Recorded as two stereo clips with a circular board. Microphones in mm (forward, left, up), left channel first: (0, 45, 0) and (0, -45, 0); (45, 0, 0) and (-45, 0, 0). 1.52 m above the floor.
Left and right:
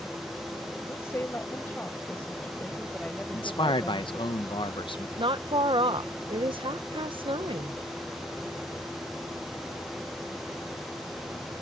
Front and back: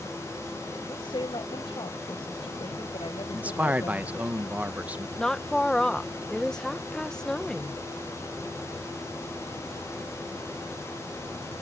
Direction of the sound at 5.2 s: 85° right.